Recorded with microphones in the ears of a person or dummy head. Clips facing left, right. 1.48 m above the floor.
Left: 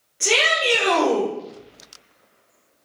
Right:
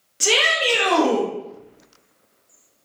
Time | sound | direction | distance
0.2 | a shout | 55° right (ahead or behind) | 1.6 m